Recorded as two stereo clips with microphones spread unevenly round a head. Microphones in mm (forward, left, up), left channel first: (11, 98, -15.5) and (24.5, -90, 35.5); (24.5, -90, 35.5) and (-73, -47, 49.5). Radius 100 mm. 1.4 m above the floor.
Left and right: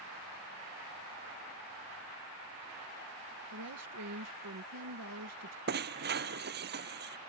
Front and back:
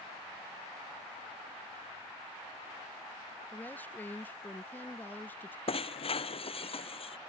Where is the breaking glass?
55° right.